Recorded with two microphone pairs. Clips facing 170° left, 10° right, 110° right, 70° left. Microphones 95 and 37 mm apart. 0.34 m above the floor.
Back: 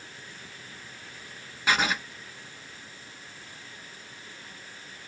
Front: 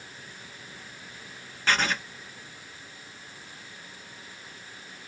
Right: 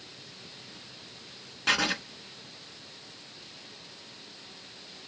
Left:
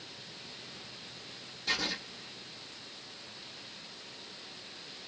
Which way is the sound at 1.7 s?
110° right.